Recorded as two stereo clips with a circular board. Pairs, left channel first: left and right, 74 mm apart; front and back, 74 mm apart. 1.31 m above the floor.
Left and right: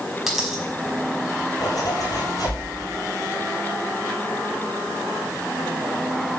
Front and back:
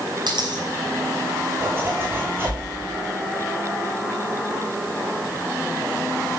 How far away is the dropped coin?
About 5 m.